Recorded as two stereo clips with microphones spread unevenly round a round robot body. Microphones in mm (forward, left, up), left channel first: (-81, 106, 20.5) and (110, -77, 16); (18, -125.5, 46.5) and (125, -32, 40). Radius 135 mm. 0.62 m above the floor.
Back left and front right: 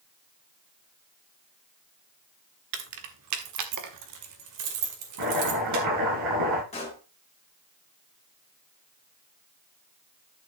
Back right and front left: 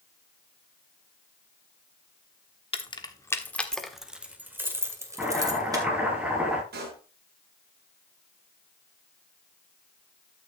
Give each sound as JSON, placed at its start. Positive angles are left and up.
{"t": 2.7, "sound": "keys jangling", "azimuth_deg": -90, "distance_m": 1.3}
{"t": 5.2, "sound": "chopping", "azimuth_deg": -40, "distance_m": 8.0}
{"t": 6.7, "sound": "a pop", "azimuth_deg": 70, "distance_m": 3.0}